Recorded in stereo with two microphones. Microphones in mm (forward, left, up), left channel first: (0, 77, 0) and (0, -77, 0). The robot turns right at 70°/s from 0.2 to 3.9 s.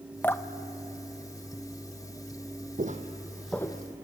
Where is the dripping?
10° left (ahead or behind), 0.7 m; by 2.0 s 15° left (ahead or behind), 0.7 m.